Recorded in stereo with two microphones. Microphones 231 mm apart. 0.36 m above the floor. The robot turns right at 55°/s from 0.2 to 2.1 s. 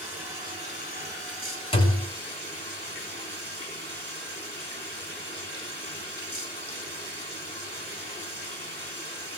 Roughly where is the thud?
Left.